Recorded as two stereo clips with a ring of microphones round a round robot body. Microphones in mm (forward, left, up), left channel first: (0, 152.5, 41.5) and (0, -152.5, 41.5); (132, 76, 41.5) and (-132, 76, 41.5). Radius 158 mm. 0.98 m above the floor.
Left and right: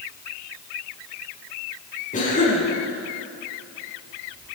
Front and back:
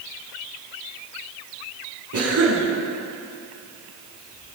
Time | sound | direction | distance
2.1 | a cough | 155° left | 7.5 m